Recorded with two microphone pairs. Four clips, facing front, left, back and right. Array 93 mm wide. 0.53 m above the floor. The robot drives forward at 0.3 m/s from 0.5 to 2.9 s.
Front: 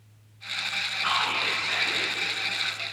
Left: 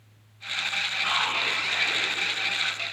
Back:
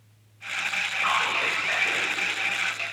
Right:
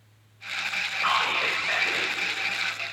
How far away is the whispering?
About 2.5 m.